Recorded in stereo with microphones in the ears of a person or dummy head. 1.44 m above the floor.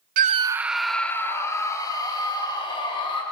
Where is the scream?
45° right (ahead or behind), 0.6 m; by 3.2 s 30° left (ahead or behind), 3.5 m.